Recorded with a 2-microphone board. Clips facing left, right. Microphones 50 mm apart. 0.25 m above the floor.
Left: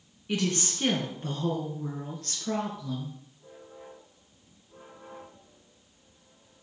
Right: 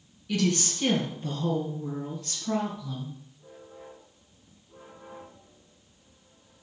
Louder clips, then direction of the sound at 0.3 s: Right 2 dB; 25° left (ahead or behind).